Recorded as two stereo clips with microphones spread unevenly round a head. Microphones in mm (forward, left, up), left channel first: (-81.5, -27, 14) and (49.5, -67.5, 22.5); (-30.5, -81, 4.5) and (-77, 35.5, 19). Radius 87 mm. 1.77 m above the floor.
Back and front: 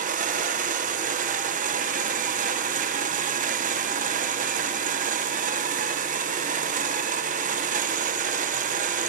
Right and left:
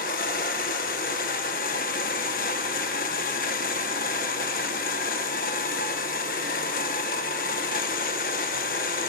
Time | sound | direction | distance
0.0 | a machine running | 30° right | 1.2 m